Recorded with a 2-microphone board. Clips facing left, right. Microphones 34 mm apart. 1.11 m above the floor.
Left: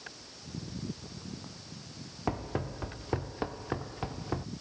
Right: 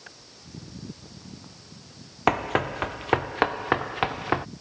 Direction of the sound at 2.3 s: 75° right (ahead or behind).